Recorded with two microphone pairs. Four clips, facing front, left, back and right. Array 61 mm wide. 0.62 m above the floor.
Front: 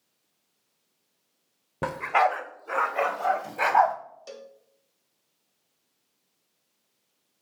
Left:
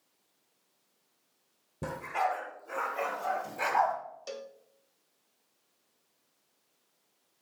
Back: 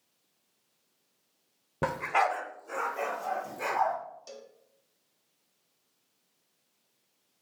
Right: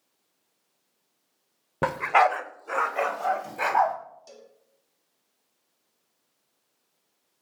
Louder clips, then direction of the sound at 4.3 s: Left 8 dB, front 4 dB; 70° left.